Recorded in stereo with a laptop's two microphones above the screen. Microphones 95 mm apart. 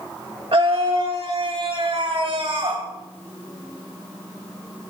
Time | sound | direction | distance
0.5 | a scream | 75° right (ahead or behind) | 2.5 m